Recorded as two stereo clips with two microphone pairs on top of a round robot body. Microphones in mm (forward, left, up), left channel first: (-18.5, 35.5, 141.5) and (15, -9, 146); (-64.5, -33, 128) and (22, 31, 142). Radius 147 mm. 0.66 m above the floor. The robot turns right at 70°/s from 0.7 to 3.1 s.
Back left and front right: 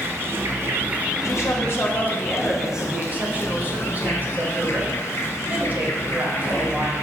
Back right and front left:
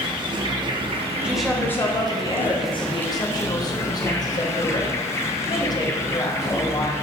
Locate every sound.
0.0 s an insect: 10° right, 0.7 m; by 7.0 s 160° left, 0.7 m
1.2 s a woman speaking: 120° left, 1.1 m; by 6.9 s 110° right, 1.1 m